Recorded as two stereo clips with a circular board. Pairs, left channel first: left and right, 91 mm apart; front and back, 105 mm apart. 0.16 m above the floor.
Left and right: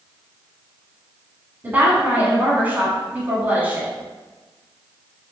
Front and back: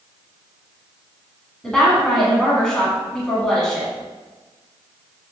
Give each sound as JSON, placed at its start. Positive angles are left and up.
{"t": 1.6, "sound": "a woman speaking", "azimuth_deg": -75, "distance_m": 1.1}